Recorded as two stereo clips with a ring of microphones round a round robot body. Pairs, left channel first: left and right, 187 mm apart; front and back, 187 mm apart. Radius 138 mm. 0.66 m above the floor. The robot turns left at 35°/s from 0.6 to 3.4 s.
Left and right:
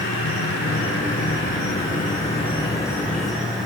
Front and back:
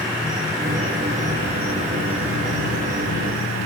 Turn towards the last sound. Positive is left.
turn(degrees=-5)